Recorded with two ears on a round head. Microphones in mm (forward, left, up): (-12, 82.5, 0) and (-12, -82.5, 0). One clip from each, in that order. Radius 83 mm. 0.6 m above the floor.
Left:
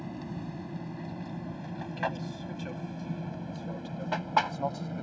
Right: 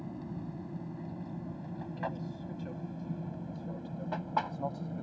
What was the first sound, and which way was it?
An aircraft, 55° left (ahead or behind).